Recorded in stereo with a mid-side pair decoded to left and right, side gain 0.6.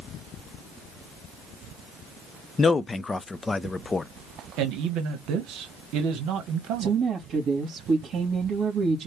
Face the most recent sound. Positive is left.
turn(degrees=-45)